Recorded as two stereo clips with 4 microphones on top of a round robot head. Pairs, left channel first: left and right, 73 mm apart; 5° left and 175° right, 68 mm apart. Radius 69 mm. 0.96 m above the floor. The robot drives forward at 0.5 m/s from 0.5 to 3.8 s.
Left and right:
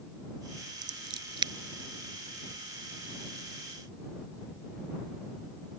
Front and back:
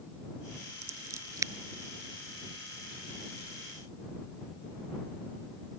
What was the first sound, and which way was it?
Scissors, 115° right.